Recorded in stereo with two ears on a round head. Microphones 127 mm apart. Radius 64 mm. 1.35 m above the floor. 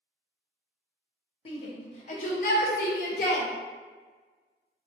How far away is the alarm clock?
No alarm clock in this recording.